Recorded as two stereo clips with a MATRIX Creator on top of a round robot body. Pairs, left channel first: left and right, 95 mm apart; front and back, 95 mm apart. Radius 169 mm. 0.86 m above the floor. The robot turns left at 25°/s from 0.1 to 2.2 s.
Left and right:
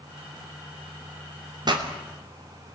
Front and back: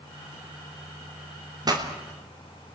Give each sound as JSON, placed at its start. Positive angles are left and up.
{"t": 1.6, "sound": "a pop", "azimuth_deg": -130, "distance_m": 3.0}